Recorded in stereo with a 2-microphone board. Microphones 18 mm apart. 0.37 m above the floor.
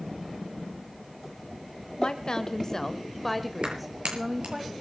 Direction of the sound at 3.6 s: 80° right.